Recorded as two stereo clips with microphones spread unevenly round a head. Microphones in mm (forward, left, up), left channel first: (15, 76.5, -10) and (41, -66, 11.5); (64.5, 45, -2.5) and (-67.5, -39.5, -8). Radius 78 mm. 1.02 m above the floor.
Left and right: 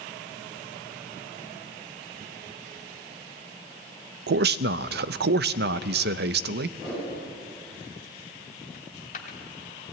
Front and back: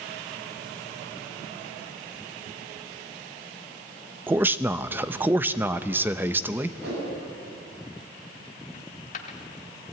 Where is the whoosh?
170° right, 8 m.